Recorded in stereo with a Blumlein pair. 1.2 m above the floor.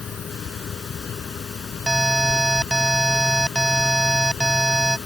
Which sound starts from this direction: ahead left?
A fan, at 0.0 s.